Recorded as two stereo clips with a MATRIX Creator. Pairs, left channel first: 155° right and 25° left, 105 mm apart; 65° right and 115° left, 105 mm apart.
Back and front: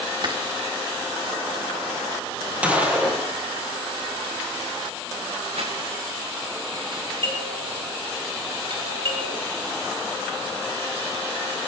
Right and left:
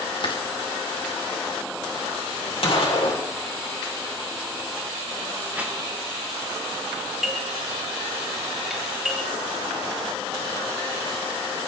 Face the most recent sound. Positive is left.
turn(degrees=25)